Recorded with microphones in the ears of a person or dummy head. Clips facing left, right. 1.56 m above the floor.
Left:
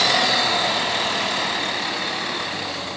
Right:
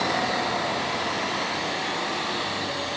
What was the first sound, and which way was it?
Only background noise.